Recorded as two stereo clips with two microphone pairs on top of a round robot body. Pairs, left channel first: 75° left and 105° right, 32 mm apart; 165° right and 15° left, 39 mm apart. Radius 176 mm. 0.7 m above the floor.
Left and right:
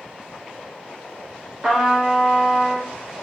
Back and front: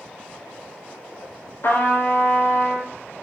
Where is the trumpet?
Straight behind, 5 m.